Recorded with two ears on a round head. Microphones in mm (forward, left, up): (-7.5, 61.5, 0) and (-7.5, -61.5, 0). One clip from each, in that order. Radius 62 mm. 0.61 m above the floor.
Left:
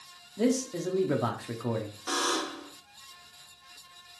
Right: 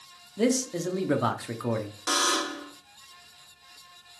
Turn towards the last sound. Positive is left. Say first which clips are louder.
# right 4 dB
turn(degrees=-40)  # may be behind; listen again after turning